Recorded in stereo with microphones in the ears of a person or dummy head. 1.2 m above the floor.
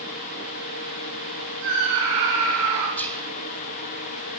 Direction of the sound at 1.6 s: 80° right.